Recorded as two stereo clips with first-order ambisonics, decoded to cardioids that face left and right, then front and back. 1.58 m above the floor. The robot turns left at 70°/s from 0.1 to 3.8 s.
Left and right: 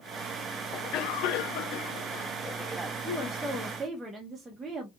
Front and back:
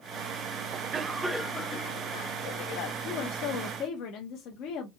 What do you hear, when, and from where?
0.7 s a cough: 135° left, 0.5 m; by 3.0 s 20° right, 0.5 m
3.0 s a woman speaking: 40° left, 0.8 m; by 4.9 s 15° right, 0.8 m